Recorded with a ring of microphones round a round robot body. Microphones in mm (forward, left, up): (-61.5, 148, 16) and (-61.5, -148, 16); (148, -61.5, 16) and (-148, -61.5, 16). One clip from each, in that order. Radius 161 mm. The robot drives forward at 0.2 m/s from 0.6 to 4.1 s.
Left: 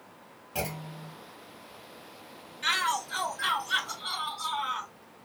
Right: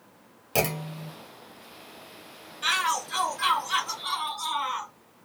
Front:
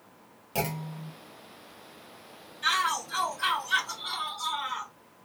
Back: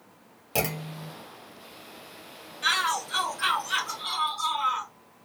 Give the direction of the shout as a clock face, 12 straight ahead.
4 o'clock.